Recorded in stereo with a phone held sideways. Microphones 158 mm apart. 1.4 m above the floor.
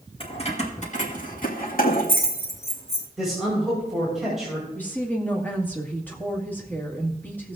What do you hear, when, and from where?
0.2 s keys jangling: 35° left (ahead or behind), 1.7 m; by 3.1 s 85° left, 2.5 m
3.2 s a man speaking: centre (ahead or behind), 5.5 m
4.8 s a woman speaking: 10° left (ahead or behind), 2.0 m